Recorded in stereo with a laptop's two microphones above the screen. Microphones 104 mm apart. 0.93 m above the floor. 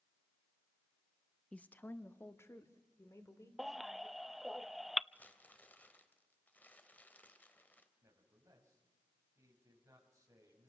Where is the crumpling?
15° left (ahead or behind), 2 m.